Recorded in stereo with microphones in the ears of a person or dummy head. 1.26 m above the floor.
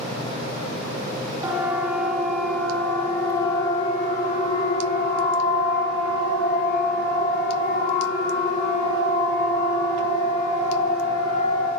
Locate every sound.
1.4 s a siren: 15° right (ahead or behind), 2.5 m; by 11.7 s 85° left, 8 m